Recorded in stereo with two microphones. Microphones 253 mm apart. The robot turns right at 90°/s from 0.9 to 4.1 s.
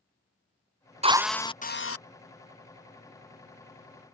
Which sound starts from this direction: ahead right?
A drill, at 1.0 s.